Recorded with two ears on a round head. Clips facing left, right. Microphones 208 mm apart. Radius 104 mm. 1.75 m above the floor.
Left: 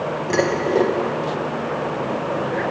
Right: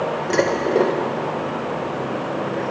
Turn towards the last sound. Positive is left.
turn(degrees=0)  # may be behind; listen again after turning